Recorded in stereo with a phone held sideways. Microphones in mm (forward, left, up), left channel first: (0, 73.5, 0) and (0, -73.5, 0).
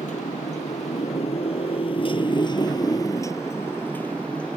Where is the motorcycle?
60° left (ahead or behind); by 4.6 s 5° left (ahead or behind).